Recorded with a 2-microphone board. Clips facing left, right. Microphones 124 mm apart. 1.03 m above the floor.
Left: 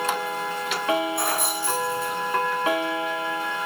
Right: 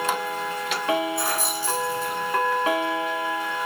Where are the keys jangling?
60° left (ahead or behind), 7.5 m.